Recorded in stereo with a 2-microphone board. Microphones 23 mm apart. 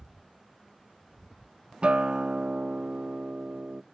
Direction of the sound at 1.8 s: 45° right (ahead or behind).